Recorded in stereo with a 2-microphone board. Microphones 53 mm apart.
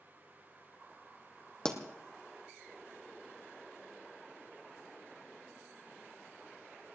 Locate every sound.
1.6 s a pop: 15° left (ahead or behind), 1.8 m